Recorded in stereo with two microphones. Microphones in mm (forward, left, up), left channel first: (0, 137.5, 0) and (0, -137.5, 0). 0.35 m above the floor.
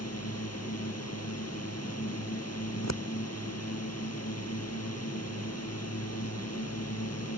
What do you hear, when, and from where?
0.0 s a drone: 65° left (ahead or behind)
2.7 s scissors: 75° left (ahead or behind)